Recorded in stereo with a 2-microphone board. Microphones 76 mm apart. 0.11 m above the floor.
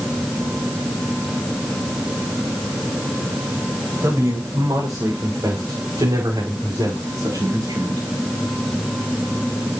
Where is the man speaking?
45° right (ahead or behind), 6.5 m; by 8.0 s 60° right (ahead or behind), 8 m.